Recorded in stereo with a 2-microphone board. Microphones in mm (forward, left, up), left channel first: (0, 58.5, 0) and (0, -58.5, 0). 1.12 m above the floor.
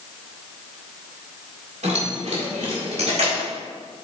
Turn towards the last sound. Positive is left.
turn(degrees=-65)  # may be behind; listen again after turning